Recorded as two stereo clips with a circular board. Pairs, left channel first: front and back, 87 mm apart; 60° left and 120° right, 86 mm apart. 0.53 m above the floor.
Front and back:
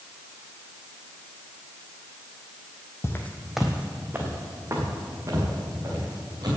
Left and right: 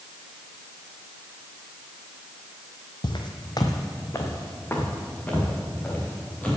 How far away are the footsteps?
About 1.0 m.